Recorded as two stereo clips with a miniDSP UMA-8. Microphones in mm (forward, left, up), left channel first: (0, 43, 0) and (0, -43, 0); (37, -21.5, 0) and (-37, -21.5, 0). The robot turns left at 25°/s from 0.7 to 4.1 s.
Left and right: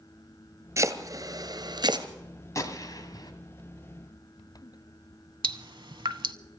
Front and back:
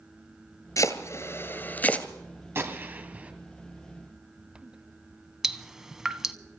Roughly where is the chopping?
Ahead right.